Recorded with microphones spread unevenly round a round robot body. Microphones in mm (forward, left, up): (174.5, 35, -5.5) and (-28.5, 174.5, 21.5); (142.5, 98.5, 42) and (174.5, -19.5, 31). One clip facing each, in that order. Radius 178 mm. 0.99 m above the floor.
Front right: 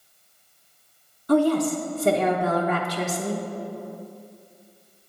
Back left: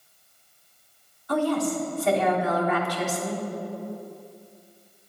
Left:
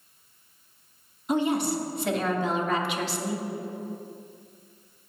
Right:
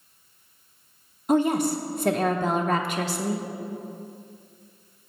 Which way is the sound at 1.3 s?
65° right.